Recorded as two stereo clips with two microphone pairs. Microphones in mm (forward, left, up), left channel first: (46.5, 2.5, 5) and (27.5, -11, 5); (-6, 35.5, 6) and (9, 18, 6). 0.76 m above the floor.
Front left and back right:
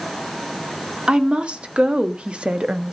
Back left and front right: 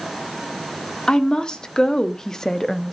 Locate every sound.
1.1 s a woman speaking: 175° left, 1.5 m; by 2.9 s 155° right, 0.7 m